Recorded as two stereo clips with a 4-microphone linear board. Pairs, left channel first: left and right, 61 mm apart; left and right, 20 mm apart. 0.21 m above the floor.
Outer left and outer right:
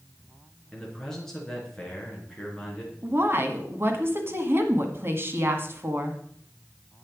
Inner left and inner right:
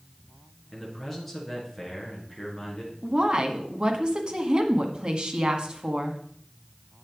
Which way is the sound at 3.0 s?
40° right (ahead or behind).